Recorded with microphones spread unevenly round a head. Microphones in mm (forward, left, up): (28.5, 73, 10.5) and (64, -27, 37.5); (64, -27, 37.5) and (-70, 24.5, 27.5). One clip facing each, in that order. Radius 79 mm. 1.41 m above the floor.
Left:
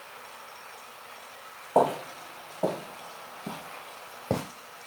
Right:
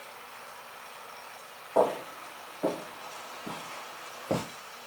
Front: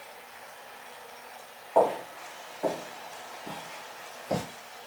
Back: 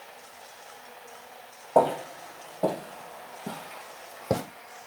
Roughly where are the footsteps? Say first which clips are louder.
Left 2 dB, back 2 dB; behind left.